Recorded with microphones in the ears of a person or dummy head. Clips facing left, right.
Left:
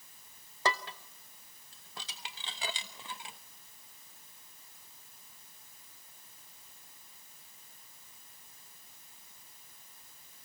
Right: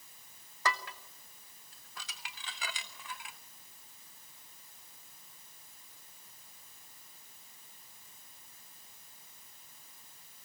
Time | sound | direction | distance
0.7 | dishes clattering | 20° left (ahead or behind) | 0.7 m